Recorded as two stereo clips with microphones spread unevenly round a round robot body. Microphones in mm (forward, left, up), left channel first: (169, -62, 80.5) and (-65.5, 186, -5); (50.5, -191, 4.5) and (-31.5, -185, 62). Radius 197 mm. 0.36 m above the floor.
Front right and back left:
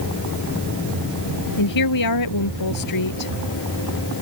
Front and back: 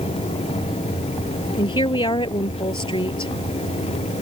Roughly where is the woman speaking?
Ahead.